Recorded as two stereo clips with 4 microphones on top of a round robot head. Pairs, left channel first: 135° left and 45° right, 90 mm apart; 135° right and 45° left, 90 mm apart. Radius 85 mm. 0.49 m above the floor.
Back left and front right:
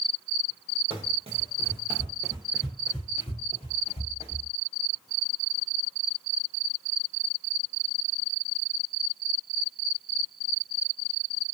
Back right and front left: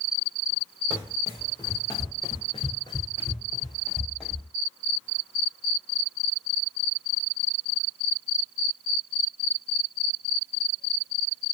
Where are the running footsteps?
65° right, 1.2 m; by 4.5 s 135° left, 1.2 m.